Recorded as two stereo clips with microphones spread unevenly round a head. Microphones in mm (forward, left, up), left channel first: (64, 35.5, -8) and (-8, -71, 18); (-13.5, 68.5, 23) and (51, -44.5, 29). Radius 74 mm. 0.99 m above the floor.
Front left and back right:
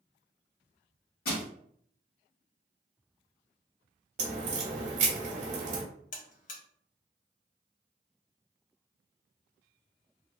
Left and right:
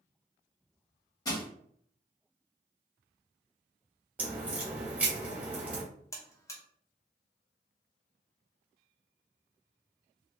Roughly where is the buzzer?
Ahead left.